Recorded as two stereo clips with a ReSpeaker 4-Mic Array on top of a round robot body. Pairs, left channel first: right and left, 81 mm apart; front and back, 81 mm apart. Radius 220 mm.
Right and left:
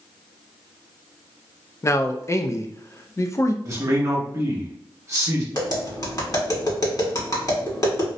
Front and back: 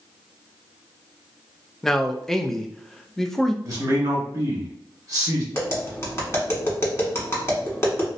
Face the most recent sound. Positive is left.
turn(degrees=-55)